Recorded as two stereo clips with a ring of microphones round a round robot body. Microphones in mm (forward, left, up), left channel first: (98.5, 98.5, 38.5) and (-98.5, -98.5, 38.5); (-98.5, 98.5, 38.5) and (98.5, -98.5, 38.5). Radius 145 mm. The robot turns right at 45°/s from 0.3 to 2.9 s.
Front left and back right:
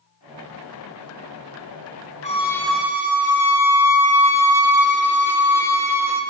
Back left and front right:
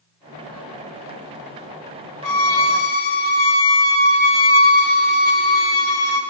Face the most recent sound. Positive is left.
turn(degrees=140)